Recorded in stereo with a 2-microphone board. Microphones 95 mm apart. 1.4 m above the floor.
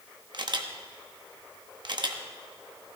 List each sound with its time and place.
0.3 s a camera shutter: 50° right (ahead or behind), 1.0 m